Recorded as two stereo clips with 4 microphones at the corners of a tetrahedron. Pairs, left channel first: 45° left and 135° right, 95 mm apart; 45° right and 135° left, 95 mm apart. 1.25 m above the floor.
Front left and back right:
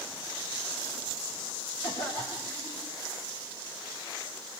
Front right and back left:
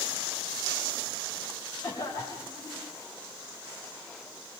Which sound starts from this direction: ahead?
A cough, at 1.8 s.